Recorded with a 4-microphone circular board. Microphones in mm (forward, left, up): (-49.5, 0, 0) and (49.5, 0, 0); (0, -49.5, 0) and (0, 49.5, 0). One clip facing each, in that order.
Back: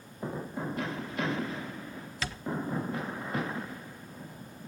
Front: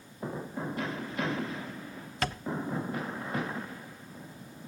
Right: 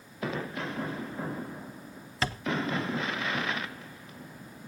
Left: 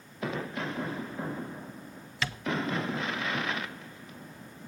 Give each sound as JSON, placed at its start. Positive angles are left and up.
{"t": 2.2, "sound": "tapping", "azimuth_deg": -40, "distance_m": 0.8}